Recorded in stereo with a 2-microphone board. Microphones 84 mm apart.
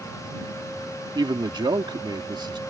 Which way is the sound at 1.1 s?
60° right (ahead or behind).